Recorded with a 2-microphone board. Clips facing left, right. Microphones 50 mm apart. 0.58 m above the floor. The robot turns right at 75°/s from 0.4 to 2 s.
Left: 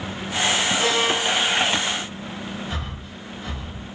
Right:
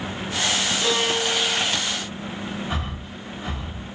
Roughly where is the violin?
Ahead left.